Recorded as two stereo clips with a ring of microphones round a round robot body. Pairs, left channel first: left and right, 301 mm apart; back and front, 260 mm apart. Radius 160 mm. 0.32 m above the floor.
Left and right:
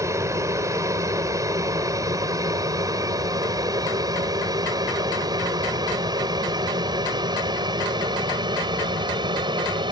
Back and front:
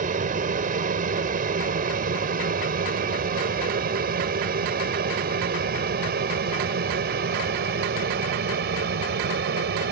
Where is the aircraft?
20° right.